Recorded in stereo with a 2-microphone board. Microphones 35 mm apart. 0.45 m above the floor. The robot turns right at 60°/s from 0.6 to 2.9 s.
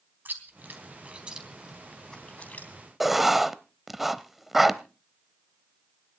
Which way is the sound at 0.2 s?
65° right (ahead or behind).